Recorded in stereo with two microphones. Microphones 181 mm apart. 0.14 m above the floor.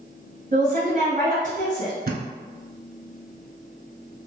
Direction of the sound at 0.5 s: 50° right (ahead or behind).